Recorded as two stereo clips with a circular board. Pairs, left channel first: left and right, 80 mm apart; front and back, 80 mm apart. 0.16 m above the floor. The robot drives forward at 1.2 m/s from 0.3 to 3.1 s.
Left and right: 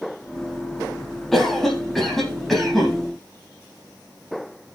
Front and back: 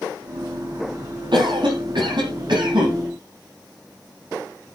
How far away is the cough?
About 6 m.